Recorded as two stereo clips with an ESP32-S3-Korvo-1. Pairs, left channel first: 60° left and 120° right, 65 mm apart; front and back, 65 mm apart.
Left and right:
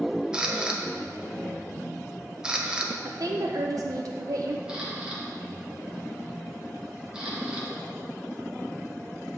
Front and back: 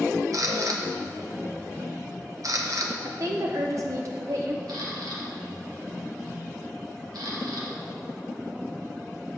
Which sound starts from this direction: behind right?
A woman speaking, at 3.0 s.